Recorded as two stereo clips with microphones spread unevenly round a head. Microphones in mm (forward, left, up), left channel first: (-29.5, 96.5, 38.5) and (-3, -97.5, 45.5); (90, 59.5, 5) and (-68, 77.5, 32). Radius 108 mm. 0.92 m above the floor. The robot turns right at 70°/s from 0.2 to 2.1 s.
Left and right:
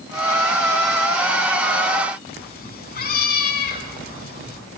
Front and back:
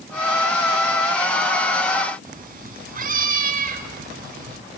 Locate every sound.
2.2 s a cat meowing: 140° left, 5 m